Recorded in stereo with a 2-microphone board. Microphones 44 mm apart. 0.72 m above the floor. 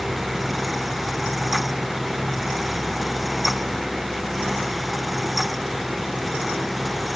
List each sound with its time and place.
Only background noise.